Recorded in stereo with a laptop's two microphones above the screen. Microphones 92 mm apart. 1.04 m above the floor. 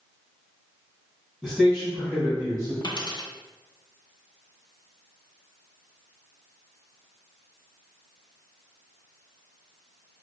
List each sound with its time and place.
1.4 s a man speaking: 10° right (ahead or behind), 1.3 m; by 2.7 s 40° right (ahead or behind), 0.9 m
2.8 s a dropped coin: 45° left (ahead or behind), 0.5 m